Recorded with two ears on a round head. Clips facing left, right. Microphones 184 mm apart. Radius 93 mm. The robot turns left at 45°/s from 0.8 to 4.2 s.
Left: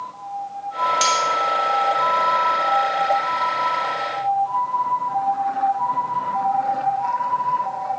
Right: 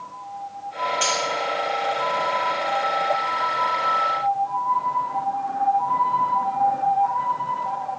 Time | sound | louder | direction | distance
1.0 | cutlery clinking | left 2 dB | 50° left (ahead or behind) | 2 m